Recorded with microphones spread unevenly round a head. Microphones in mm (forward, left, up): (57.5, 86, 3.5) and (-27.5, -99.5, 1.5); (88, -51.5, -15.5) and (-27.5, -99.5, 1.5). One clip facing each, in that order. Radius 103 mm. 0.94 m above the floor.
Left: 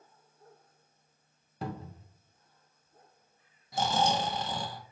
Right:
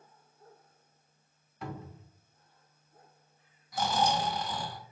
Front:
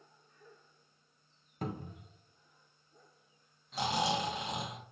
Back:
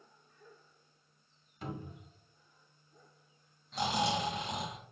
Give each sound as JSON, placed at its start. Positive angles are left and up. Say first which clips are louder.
{"t": 1.6, "sound": "a cupboard door", "louder": "left 3 dB, front 3 dB", "azimuth_deg": 35, "distance_m": 0.6}
{"t": 3.7, "sound": "snoring", "louder": "left 1 dB, even", "azimuth_deg": 95, "distance_m": 0.7}